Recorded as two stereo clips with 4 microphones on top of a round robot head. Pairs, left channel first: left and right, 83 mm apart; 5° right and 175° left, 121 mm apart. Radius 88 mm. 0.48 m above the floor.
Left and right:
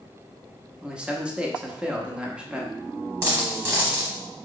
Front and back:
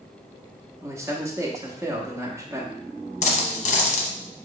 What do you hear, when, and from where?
0.8 s a man speaking: 155° right, 0.9 m
3.2 s a dropped coin: 25° right, 0.8 m